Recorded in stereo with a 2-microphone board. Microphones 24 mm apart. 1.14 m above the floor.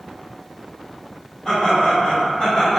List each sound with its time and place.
1.4 s laughter: 40° left (ahead or behind), 1.3 m; by 2.8 s 55° left (ahead or behind), 0.8 m